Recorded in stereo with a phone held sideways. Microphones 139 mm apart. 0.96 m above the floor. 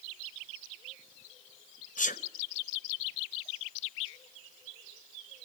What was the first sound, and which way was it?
A sneeze, 70° left (ahead or behind).